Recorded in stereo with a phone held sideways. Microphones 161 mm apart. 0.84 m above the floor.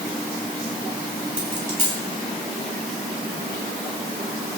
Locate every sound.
1.4 s a dropped coin: 45° right (ahead or behind), 4.5 m